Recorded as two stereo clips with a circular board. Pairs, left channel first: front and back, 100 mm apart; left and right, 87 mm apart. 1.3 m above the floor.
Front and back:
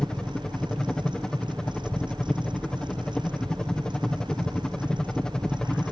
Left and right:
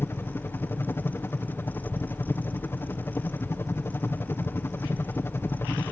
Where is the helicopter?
75° left.